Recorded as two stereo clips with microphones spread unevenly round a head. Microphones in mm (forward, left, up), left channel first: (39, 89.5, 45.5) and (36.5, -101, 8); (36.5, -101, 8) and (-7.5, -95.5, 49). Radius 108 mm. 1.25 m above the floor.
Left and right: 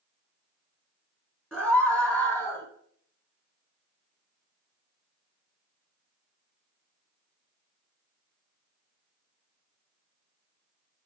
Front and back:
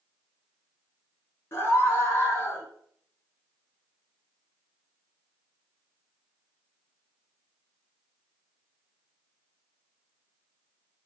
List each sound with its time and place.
1.5 s a scream: straight ahead, 2 m; by 2.7 s 10° left, 1.7 m